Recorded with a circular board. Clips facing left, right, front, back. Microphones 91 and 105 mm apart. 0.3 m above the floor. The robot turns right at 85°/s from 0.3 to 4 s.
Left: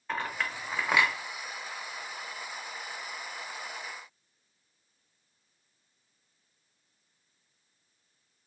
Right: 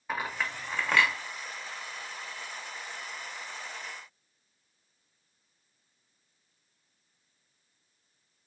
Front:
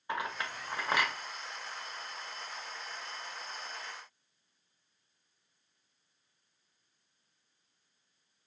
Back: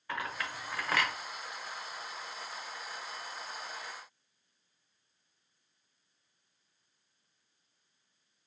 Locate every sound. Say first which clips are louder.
0.1 s a clink: even, front 1 dB; 20° right, 0.5 m; by 1.1 s 50° left, 0.5 m